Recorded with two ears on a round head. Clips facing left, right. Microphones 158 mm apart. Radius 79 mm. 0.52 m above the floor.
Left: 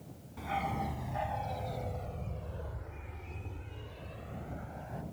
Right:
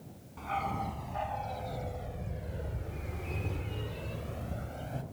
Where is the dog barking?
10° left (ahead or behind); by 5.0 s 40° right (ahead or behind).